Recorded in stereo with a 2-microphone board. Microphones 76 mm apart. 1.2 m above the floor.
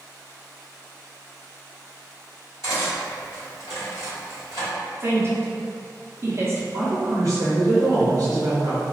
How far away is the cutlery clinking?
About 1.5 m.